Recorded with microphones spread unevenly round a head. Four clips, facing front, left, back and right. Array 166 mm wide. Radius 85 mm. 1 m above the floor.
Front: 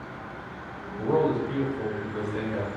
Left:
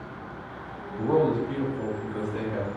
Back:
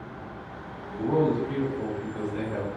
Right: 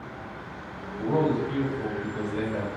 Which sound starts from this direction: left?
A man speaking, at 1.0 s.